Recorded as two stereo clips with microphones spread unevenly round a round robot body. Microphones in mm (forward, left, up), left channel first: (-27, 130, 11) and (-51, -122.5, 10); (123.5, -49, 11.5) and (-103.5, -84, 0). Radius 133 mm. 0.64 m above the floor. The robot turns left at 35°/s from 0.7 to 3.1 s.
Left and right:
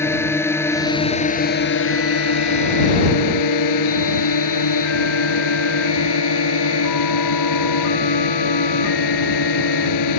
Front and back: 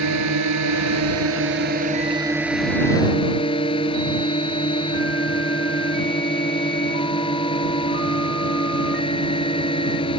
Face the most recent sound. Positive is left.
turn(degrees=80)